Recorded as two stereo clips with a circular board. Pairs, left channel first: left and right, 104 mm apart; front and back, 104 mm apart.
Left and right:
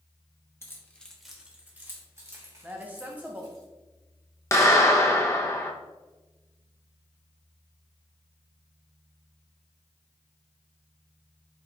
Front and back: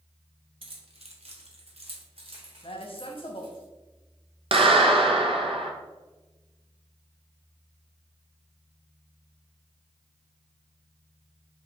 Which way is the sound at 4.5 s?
150° left.